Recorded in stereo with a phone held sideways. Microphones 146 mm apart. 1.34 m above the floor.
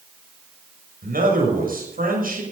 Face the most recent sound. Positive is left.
turn(degrees=-80)